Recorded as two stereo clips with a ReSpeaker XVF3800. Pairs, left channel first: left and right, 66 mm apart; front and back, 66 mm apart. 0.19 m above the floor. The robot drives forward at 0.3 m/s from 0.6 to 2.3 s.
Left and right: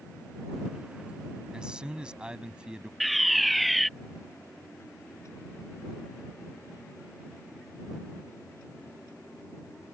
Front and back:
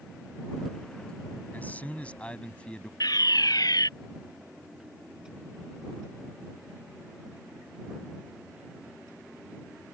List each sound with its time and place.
1.5 s a man speaking: 30° right; by 2.9 s 40° right
3.0 s a fire alarm: straight ahead